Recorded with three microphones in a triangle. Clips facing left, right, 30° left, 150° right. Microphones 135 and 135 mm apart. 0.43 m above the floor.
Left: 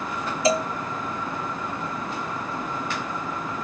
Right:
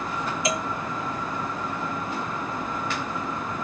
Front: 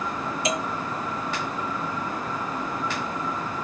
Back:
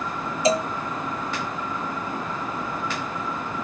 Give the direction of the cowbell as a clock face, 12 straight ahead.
7 o'clock.